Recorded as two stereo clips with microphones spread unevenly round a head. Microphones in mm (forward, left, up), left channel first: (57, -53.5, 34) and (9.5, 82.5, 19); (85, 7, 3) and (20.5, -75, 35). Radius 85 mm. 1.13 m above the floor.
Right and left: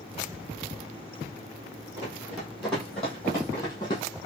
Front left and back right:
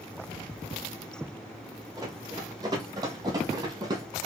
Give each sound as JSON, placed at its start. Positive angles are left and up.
{"t": 2.0, "sound": "running footsteps", "azimuth_deg": -170, "distance_m": 1.8}